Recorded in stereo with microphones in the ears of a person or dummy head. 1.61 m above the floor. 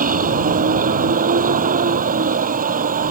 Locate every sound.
0.0 s a vehicle: 40° right (ahead or behind)